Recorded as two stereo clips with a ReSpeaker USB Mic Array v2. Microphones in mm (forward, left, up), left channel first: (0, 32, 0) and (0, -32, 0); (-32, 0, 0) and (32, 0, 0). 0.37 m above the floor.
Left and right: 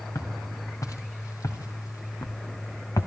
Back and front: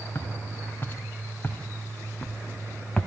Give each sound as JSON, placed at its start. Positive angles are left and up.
{"t": 0.1, "sound": "footsteps", "azimuth_deg": 120, "distance_m": 3.0}